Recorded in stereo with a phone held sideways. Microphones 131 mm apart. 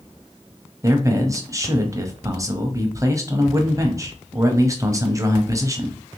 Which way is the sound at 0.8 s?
25° right (ahead or behind).